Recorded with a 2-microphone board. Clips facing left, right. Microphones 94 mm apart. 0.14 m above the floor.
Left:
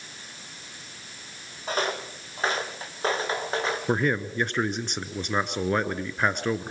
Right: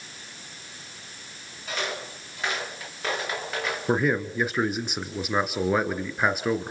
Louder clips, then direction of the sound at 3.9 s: Right 3 dB; 5° right (ahead or behind).